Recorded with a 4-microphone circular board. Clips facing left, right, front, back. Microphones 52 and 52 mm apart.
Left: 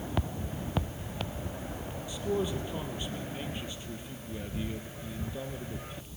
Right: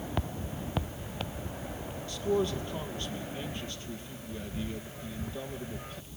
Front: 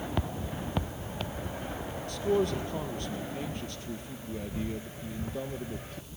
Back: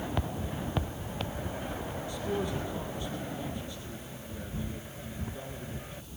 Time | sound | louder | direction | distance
2.1 | a man speaking | right 2 dB, front 6 dB | 10° left | 3.5 m